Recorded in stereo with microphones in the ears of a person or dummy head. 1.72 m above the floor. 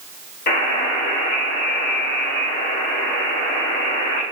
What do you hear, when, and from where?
0.5 s a buzzer: 55° left (ahead or behind), 2.5 m